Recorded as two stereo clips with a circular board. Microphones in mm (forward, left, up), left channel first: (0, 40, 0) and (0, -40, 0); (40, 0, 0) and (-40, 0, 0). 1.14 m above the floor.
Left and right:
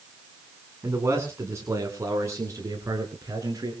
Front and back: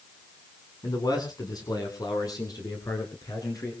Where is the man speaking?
30° right, 8.5 m; by 3.7 s 40° right, 12 m.